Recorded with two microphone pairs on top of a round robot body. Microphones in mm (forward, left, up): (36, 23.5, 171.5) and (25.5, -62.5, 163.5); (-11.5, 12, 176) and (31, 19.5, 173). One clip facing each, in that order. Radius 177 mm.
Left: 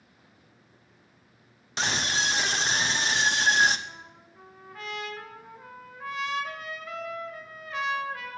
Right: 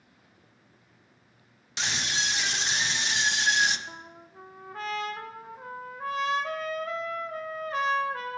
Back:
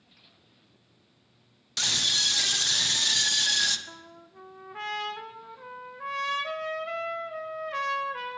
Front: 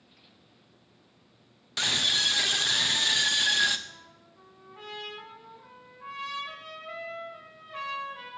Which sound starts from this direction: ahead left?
A scream, at 1.8 s.